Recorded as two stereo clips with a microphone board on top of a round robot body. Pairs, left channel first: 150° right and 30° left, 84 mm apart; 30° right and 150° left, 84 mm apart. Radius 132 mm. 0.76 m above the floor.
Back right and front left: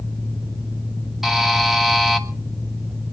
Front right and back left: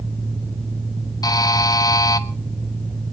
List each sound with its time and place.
1.2 s a buzzer: 55° right, 1.4 m